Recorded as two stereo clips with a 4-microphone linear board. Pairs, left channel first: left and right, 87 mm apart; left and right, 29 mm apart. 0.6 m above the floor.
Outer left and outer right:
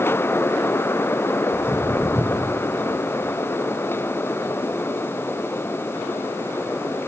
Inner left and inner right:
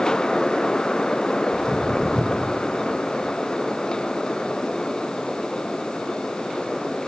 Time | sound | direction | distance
1.5 | footsteps | 15° left (ahead or behind) | 4 m